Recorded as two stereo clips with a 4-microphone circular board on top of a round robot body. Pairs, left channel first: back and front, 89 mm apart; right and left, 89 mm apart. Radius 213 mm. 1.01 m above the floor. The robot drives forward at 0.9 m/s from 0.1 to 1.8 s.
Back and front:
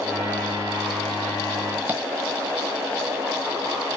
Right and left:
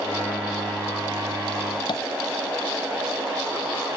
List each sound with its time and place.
1.9 s tapping: 70° right, 1.1 m